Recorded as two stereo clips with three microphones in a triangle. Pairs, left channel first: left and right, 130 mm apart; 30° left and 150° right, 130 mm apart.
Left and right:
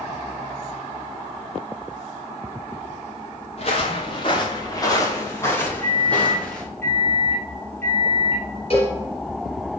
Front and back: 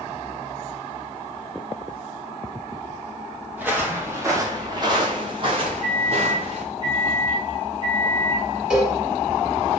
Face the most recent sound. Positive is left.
turn(degrees=125)